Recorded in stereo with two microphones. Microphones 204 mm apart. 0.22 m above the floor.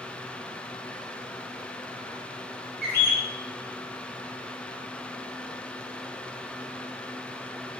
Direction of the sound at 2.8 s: 50° left (ahead or behind).